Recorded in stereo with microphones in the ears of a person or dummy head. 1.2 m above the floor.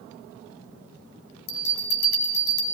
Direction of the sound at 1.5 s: 70° left (ahead or behind).